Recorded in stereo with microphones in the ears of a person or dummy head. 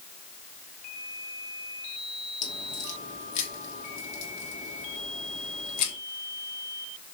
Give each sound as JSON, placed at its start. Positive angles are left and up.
{"t": 2.4, "sound": "a crack", "side_deg": 40, "distance_m": 2.5}